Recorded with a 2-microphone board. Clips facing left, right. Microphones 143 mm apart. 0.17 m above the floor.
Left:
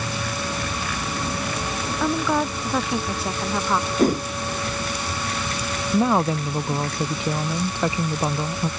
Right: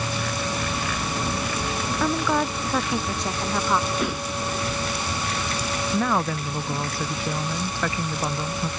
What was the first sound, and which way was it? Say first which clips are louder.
A woman speaking: left 1 dB; 5° left (ahead or behind).